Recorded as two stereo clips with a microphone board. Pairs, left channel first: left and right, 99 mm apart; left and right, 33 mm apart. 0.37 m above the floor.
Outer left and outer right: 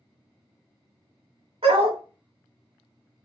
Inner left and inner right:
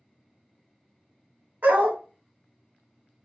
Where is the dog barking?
70° right (ahead or behind), 0.9 m.